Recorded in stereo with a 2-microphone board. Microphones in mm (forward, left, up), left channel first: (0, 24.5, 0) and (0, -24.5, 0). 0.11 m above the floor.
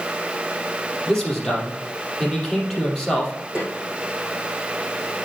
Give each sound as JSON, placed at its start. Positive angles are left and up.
{"t": 1.1, "sound": "a man speaking", "side_deg": 5, "distance_m": 3.5}
{"t": 3.5, "sound": "a snare drum", "side_deg": -20, "distance_m": 4.0}